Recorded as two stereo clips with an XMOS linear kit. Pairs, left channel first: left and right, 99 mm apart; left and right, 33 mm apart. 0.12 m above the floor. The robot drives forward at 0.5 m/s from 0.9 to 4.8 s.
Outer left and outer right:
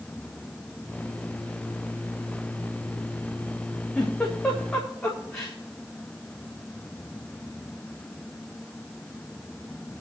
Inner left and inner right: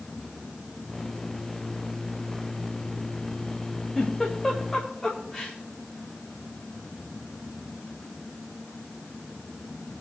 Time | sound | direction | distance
4.0 | a giggle | 5° left (ahead or behind) | 3.5 m